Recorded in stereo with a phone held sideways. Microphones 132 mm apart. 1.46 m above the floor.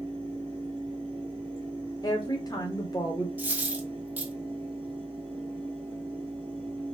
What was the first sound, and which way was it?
A fan, 40° right (ahead or behind).